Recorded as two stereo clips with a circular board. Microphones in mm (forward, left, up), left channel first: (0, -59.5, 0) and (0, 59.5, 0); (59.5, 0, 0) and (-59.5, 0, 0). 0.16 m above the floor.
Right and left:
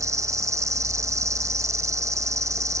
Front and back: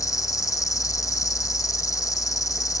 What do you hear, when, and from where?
0.0 s an insect: 45° left